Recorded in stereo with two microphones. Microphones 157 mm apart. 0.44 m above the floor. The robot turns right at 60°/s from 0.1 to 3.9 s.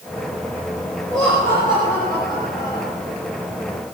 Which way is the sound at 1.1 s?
160° right.